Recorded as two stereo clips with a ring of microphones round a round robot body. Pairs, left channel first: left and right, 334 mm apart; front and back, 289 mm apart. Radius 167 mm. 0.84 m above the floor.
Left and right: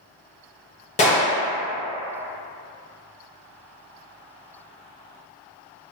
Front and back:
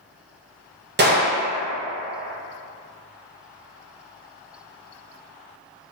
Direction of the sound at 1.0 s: 150° left.